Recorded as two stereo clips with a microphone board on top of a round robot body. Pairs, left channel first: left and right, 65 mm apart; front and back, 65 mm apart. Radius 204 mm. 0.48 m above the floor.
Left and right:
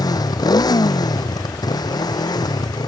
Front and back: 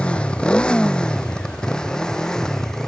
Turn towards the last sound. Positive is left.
turn(degrees=80)